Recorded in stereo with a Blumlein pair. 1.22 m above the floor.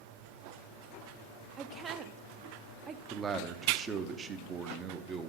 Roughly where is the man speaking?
Ahead.